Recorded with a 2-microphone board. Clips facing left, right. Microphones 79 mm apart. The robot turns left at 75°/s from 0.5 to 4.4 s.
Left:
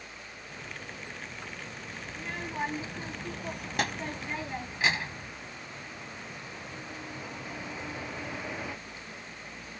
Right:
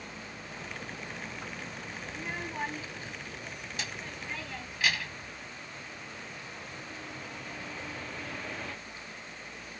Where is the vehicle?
55° right; by 9.8 s 10° left.